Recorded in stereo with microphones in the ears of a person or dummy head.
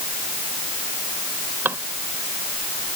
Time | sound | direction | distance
1.6 | a drawer | 10° right (ahead or behind) | ?